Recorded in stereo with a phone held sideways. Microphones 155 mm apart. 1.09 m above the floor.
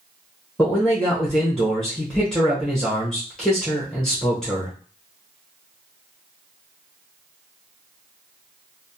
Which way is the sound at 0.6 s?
5° left (ahead or behind).